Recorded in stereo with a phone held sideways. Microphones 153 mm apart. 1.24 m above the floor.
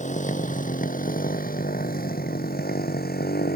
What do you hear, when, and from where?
0.0 s a motorcycle: 50° left (ahead or behind); by 3.6 s 75° left (ahead or behind)